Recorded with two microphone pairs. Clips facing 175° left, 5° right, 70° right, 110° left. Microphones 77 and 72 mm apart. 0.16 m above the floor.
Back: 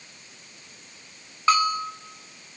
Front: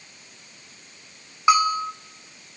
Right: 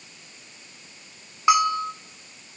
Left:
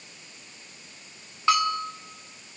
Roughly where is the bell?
Ahead right.